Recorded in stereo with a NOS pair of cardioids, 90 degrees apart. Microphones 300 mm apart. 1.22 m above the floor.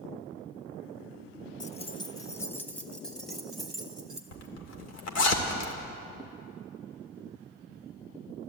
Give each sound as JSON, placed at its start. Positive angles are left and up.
{"t": 1.6, "sound": "keys jangling", "azimuth_deg": 25, "distance_m": 0.6}
{"t": 4.3, "sound": "a zipper", "azimuth_deg": 60, "distance_m": 2.0}